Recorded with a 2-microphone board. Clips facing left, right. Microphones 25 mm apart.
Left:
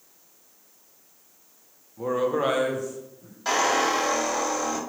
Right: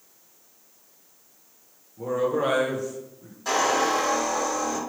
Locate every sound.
2.0 s a man speaking: 55° left (ahead or behind), 0.8 m; by 3.4 s 55° right (ahead or behind), 0.9 m
3.5 s a squeak: 30° left (ahead or behind), 1.7 m